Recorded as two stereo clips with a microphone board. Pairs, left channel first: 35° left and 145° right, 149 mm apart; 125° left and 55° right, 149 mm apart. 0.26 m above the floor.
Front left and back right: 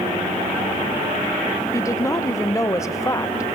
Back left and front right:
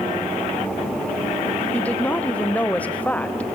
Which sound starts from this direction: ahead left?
A woman speaking, at 1.7 s.